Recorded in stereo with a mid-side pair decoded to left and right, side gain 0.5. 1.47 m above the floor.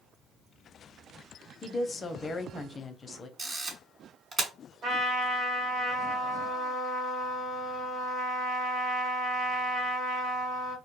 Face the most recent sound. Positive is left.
turn(degrees=-50)